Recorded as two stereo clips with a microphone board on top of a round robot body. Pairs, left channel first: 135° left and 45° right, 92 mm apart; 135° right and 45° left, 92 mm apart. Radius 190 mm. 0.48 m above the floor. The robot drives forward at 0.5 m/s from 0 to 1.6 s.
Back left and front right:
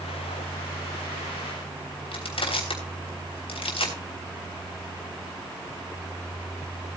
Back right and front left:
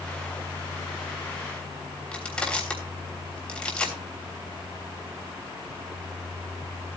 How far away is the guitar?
I don't hear a guitar.